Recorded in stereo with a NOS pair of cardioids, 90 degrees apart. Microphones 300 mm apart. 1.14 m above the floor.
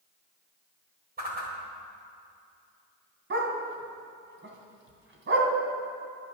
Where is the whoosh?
30° right, 4 m.